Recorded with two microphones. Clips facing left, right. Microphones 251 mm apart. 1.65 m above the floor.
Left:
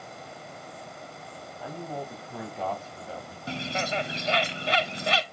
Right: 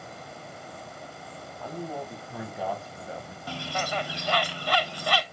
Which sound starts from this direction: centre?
A man speaking, at 1.6 s.